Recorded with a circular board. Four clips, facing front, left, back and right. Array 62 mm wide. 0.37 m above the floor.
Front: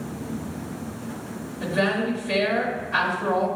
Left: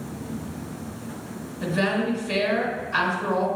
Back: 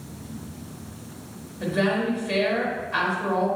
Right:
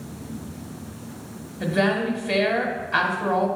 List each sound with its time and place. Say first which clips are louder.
1.6 s a woman speaking: right 2 dB, even; 90° right, 1.5 m